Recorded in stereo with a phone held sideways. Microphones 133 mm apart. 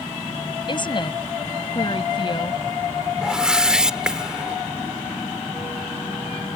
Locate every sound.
0.7 s a woman speaking: 35° left (ahead or behind)
3.2 s a whoosh: 5° right (ahead or behind)